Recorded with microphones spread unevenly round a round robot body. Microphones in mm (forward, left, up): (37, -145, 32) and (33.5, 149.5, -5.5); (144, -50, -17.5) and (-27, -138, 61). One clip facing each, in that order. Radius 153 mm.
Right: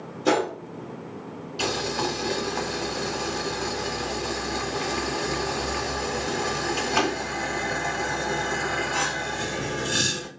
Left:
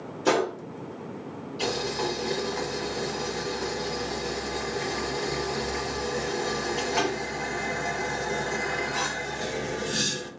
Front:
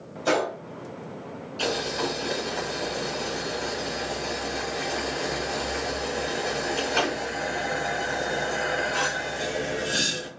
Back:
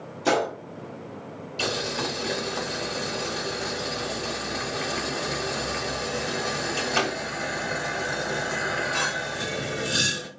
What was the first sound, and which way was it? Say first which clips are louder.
A gunshot: right 1 dB, back 1 dB; 175° left.